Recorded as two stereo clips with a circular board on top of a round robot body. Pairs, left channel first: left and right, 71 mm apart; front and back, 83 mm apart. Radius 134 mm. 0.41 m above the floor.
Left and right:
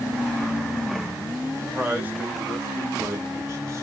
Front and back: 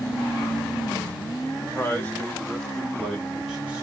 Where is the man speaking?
30° right, 1.5 m; by 3.8 s 110° right, 1.7 m.